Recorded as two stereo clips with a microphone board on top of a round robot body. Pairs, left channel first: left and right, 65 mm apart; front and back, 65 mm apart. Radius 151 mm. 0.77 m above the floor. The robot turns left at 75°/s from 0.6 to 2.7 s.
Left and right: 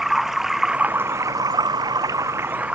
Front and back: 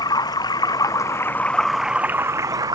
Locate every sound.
0.0 s running water: 5° right; by 2.8 s 160° right